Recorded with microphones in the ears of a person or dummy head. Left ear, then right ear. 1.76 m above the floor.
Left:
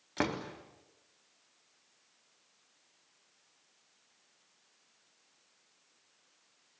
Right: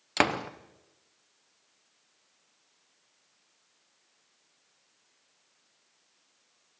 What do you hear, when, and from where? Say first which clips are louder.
0.2 s a door slam: right 8 dB; 35° right (ahead or behind), 0.7 m